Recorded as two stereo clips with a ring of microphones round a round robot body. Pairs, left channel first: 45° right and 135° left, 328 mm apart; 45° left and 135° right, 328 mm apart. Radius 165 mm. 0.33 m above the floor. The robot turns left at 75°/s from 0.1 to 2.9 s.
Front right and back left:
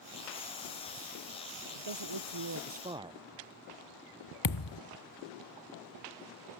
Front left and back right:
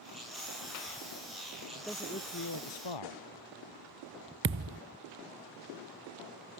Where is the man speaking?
145° left; by 3.2 s 60° left.